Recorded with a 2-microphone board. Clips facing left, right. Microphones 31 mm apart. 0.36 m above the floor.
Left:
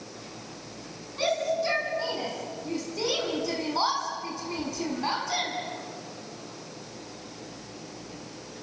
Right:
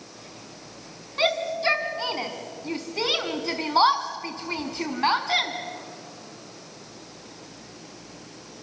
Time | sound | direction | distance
1.2 | a shout | 50° right (ahead or behind) | 4 m